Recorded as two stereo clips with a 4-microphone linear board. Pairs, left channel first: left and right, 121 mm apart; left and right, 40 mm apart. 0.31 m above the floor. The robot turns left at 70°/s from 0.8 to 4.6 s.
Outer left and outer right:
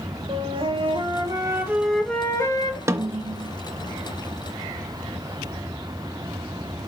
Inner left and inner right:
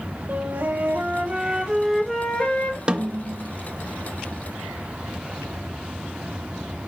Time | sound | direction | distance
0.3 | a flute | 100° right | 1.0 m
2.9 | a snare drum | 25° right (ahead or behind) | 0.5 m